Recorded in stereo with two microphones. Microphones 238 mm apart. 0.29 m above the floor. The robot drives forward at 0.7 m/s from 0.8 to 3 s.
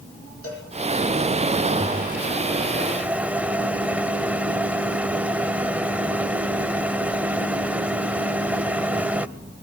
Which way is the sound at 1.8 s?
5° right (ahead or behind).